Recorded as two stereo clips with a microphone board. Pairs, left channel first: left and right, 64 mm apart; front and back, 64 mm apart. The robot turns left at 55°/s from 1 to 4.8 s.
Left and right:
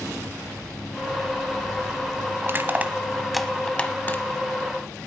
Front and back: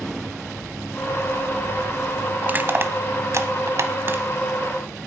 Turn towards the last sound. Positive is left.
turn(degrees=105)